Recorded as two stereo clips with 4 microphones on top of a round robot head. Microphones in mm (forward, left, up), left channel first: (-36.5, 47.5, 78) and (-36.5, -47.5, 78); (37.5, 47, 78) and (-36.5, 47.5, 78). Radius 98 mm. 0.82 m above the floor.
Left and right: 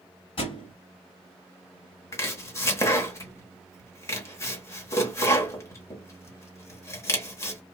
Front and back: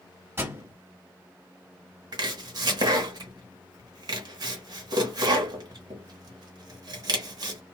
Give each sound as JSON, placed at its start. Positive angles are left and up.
{"t": 0.4, "sound": "a thud", "azimuth_deg": 120, "distance_m": 1.7}
{"t": 2.1, "sound": "chopping", "azimuth_deg": 150, "distance_m": 0.8}